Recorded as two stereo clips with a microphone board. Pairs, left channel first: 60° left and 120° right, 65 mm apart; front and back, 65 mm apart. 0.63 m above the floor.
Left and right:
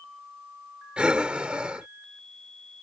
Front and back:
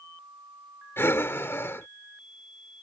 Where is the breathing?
50° right.